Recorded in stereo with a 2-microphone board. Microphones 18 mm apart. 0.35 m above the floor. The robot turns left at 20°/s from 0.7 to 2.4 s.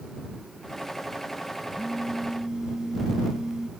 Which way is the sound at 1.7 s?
20° right (ahead or behind).